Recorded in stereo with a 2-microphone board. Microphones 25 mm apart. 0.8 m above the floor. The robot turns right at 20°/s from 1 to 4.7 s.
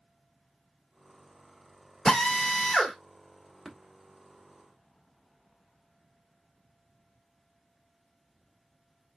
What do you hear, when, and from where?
2.0 s a drill: 30° left (ahead or behind), 1.6 m; by 3.0 s 15° left (ahead or behind), 1.6 m
3.6 s tapping: 15° right (ahead or behind), 1.2 m; by 3.8 s 20° right (ahead or behind), 1.2 m